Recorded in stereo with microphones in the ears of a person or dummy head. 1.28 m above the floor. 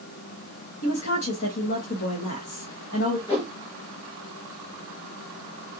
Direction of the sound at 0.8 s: 55° left (ahead or behind).